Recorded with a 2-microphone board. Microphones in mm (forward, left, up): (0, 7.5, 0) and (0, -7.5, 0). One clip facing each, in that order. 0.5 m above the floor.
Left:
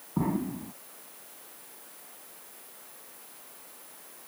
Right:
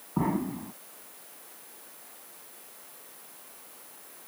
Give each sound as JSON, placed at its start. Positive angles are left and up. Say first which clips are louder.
{"t": 0.2, "sound": "an explosion", "louder": "right 1 dB", "side_deg": -15}